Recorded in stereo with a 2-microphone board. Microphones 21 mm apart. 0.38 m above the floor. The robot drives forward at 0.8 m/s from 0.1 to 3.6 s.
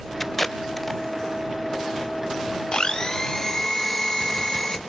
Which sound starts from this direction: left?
A blender, at 2.7 s.